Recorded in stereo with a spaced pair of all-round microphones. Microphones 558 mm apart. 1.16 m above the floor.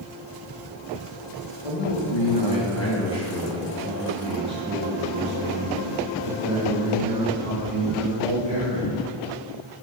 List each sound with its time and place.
1.6 s a man speaking: 65° left (ahead or behind), 1.6 m; by 9.0 s 60° right (ahead or behind), 5.5 m